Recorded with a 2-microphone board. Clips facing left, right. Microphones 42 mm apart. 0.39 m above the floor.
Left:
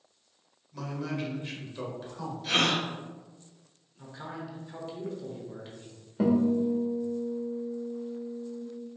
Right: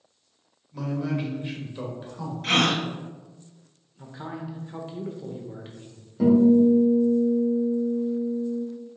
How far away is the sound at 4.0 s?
About 0.8 m.